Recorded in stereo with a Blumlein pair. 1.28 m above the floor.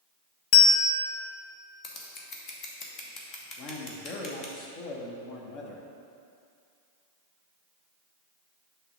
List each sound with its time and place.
0.5 s a bell: 45° left, 0.5 m
1.8 s scissors: 35° left, 1.1 m
3.6 s a man speaking: 40° left, 1.2 m